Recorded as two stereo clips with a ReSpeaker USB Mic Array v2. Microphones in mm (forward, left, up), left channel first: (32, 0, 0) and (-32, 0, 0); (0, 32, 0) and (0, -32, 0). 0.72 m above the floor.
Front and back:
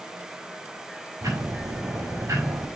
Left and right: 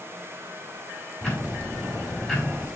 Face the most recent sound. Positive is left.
turn(degrees=170)